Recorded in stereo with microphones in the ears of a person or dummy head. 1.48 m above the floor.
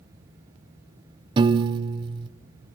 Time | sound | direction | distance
1.4 | a piano | 30° right (ahead or behind) | 0.5 m